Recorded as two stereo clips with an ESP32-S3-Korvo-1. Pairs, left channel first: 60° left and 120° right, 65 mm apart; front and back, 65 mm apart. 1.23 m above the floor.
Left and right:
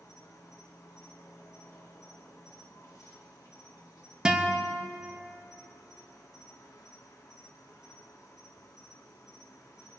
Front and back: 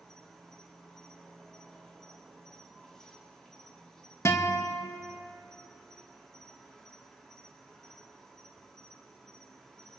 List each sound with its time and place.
0.0 s an insect: 80° left, 1.5 m
4.2 s a guitar: 45° right, 1.0 m